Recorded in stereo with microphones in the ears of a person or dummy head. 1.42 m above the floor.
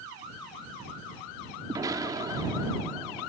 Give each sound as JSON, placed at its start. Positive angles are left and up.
{"t": 1.7, "sound": "an explosion", "side_deg": -20}